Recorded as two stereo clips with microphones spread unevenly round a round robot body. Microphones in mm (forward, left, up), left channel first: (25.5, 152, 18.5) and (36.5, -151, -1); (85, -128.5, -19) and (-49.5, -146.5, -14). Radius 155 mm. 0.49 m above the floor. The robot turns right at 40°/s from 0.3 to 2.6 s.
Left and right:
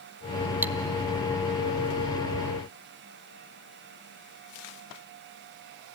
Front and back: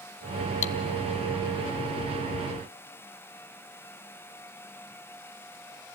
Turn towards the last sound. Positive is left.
turn(degrees=70)